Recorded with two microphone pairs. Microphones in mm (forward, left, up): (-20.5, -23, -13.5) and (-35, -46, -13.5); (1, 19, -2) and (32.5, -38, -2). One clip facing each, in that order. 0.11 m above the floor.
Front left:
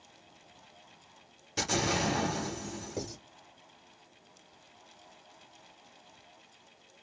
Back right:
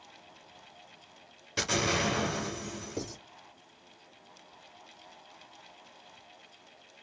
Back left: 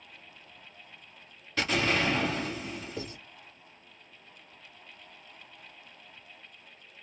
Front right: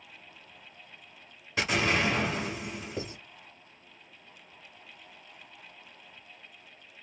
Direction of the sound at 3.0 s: 15° right.